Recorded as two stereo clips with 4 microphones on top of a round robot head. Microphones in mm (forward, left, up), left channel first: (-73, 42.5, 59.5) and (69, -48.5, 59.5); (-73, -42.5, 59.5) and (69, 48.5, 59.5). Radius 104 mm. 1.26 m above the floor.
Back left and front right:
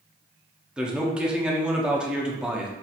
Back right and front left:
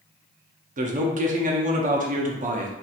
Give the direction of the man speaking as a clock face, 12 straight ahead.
10 o'clock.